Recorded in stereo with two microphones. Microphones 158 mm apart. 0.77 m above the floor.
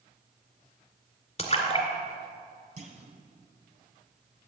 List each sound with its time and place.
1.4 s a splash: 40° left (ahead or behind), 1.9 m
2.8 s a clunk: 45° right (ahead or behind), 1.7 m